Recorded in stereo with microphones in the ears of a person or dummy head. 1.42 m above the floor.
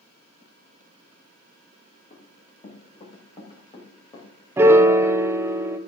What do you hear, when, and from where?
2.1 s running footsteps: 35° left (ahead or behind), 5 m; by 4.3 s 25° left (ahead or behind), 4 m
4.6 s a piano: 15° right (ahead or behind), 0.5 m